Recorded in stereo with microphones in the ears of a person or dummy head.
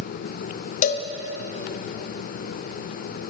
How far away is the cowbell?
About 0.6 m.